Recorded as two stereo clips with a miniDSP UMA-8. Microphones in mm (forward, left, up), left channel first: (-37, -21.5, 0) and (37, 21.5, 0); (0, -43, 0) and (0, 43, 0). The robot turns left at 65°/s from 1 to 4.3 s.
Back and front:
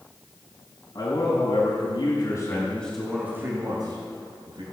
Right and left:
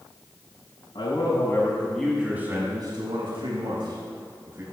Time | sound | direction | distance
0.9 | a man speaking | 110° right | 5.5 m